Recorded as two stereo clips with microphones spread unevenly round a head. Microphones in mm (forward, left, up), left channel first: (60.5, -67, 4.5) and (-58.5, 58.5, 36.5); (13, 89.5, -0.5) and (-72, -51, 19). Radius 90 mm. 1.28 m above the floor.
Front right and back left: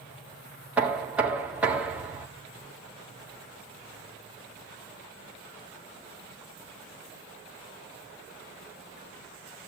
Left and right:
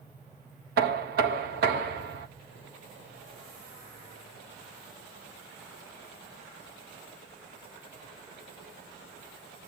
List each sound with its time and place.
0.8 s knocking: 145° right, 1.2 m